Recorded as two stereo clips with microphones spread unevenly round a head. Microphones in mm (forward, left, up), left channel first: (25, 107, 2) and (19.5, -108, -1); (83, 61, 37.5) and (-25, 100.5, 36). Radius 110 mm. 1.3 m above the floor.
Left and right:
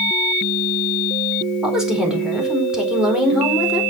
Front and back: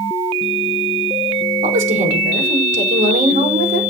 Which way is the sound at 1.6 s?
Straight behind.